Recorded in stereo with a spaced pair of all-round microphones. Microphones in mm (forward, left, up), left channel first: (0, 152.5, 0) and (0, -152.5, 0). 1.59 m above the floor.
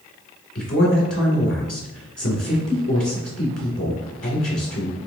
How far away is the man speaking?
About 1.9 m.